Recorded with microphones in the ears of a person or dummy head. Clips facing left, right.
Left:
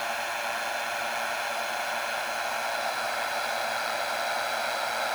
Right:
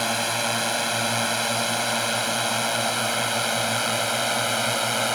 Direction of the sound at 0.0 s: 55° right (ahead or behind).